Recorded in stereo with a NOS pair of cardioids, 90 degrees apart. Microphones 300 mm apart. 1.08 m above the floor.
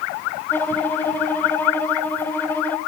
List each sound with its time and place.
0.5 s a violin: 5° left, 1.2 m